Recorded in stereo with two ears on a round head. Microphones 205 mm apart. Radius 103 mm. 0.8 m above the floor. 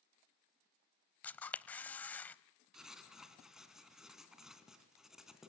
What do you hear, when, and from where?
1.2 s a camera shutter: 10° left (ahead or behind), 0.7 m
2.7 s writing: centre (ahead or behind), 2.5 m